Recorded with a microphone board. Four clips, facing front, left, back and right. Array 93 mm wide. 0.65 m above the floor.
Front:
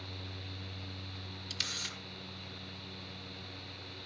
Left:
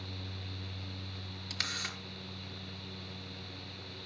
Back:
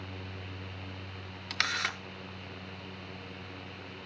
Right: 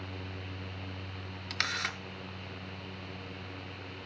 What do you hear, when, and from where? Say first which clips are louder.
1.5 s a camera shutter: right 6 dB, back 14 dB; 155° right, 0.8 m